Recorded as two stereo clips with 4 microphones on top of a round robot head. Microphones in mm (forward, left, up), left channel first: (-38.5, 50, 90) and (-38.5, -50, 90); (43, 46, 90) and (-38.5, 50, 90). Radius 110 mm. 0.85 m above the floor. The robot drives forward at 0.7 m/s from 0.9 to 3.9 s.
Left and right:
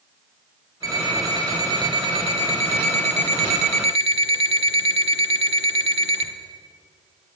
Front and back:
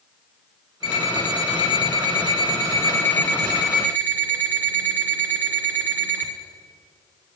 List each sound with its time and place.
0.8 s an alarm clock: 25° right, 2.0 m; by 6.3 s 110° right, 1.0 m